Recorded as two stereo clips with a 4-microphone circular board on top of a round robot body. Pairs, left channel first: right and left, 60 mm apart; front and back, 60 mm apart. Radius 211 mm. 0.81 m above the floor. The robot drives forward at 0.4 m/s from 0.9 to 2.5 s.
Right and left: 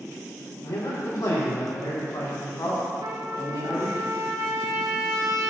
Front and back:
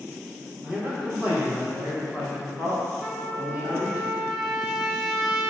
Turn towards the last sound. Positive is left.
turn(degrees=90)